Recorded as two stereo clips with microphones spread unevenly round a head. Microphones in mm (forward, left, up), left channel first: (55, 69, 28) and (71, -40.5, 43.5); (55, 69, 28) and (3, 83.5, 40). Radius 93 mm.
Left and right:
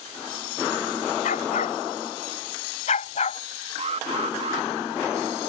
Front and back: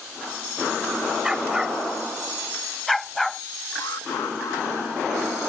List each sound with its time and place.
1.2 s a dog barking: 95° left; by 3.4 s 75° left
3.8 s an alarm: 60° right